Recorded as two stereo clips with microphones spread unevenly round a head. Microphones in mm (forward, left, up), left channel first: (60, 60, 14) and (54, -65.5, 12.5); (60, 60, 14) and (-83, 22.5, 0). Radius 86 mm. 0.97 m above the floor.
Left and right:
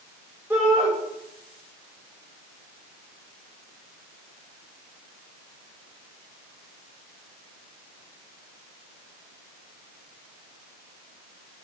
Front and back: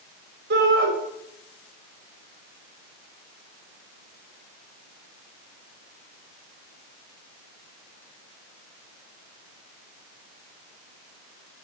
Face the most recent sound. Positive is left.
turn(degrees=-175)